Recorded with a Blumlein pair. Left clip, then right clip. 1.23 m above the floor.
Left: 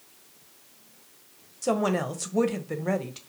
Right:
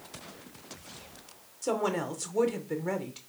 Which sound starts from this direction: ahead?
A woman speaking, at 1.6 s.